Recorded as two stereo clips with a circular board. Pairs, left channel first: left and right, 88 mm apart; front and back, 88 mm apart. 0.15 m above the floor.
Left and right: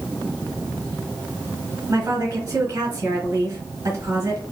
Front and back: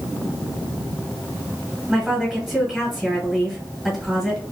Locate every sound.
1.9 s a woman speaking: 95° right, 1.7 m